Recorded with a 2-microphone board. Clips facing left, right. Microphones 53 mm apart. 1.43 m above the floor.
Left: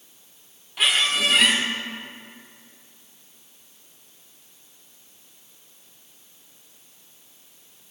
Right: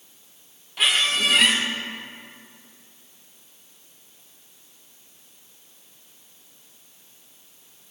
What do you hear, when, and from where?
0.8 s a squeak: centre (ahead or behind), 0.7 m